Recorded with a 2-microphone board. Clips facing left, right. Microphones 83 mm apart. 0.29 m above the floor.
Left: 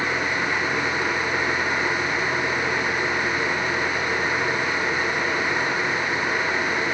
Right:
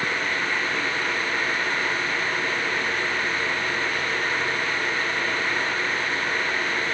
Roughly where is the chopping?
I don't hear chopping.